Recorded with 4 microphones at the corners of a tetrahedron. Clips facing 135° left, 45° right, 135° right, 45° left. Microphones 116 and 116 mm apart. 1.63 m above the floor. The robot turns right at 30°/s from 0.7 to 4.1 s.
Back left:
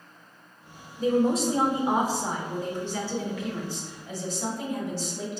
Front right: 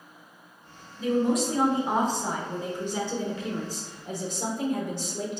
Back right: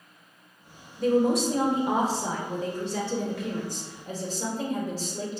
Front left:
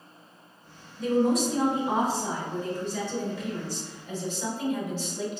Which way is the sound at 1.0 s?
175° right.